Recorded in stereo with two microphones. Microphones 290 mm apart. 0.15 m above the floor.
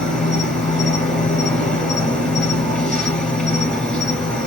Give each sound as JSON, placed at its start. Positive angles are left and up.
{"t": 0.0, "sound": "an insect", "side_deg": 5, "distance_m": 2.5}